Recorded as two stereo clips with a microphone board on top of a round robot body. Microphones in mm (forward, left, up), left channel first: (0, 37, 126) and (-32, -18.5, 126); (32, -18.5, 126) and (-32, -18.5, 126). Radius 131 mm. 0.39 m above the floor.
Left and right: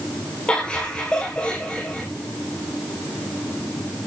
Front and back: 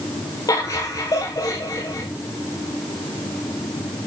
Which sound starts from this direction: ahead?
Laughter, at 0.5 s.